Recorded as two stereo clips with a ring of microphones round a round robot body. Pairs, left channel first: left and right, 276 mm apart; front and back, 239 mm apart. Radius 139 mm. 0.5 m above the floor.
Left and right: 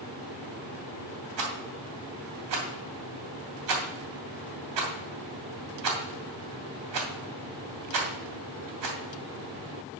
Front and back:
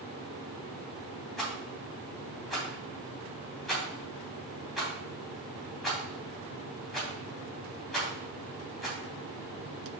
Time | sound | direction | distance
1.4 | a rattle | 90° right | 2.5 m